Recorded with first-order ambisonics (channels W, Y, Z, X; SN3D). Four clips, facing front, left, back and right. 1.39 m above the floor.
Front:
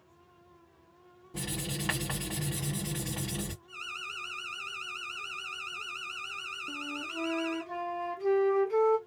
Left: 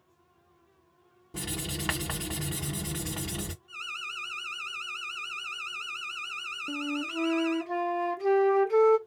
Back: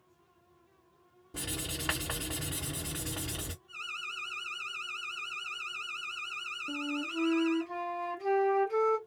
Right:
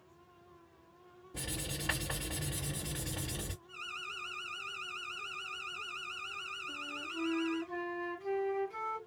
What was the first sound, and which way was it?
Writing, 85° left.